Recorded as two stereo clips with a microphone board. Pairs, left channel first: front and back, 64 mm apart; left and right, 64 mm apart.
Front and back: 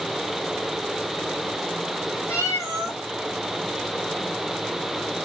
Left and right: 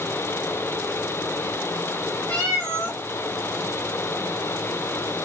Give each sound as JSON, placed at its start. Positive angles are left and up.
{"t": 2.3, "sound": "a cat meowing", "azimuth_deg": 25, "distance_m": 2.0}